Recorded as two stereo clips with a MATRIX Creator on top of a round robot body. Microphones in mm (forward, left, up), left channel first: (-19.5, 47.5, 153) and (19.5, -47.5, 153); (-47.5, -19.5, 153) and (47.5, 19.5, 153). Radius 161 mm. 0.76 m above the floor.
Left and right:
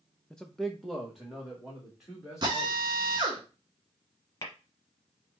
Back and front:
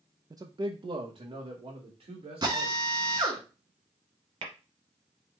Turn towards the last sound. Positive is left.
turn(degrees=50)